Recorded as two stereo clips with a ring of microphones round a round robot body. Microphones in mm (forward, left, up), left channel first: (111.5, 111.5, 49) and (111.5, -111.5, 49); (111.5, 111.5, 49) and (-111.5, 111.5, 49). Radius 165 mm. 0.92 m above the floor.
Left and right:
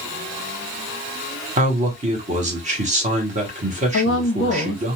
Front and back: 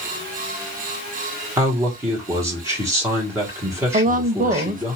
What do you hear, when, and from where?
1.6 s a man speaking: 110° right, 1.0 m
3.9 s a woman speaking: 125° left, 0.7 m